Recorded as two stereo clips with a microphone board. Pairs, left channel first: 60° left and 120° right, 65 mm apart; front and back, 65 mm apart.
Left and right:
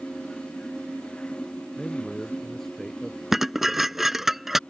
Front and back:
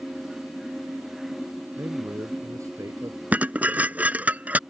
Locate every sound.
1.8 s a man speaking: 145° left; by 3.2 s 150° left
3.3 s dishes clattering: 160° left